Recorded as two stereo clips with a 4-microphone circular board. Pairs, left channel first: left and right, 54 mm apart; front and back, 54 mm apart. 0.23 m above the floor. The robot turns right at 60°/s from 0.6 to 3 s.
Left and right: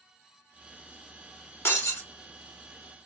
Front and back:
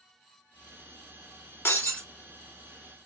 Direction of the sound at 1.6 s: 45° left.